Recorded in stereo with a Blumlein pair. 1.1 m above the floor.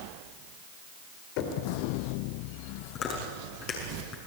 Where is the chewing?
30° left, 6.5 m.